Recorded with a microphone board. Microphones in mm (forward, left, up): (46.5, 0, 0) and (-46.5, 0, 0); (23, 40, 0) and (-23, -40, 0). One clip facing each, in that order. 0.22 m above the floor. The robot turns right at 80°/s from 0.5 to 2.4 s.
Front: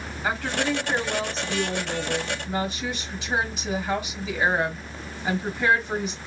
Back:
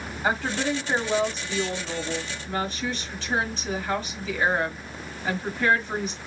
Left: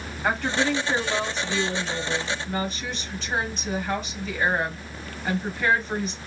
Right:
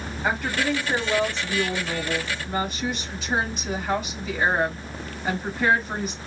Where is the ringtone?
I don't hear a ringtone.